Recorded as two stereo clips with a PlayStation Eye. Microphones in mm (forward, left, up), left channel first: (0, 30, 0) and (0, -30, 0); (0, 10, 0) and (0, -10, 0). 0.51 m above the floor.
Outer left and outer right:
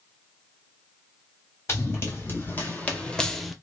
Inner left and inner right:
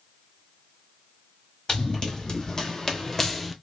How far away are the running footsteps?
About 1.3 m.